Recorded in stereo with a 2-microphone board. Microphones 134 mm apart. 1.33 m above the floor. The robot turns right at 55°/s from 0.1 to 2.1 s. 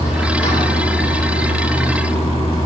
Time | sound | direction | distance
0.0 | running water | 25° left | 2.5 m